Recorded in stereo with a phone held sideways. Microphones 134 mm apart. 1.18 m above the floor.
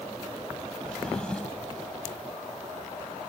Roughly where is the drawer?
Centre.